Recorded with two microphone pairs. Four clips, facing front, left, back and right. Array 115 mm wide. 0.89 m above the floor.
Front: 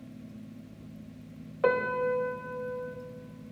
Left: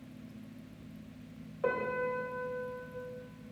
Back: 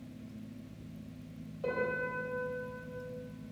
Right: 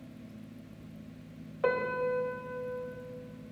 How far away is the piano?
About 2.5 m.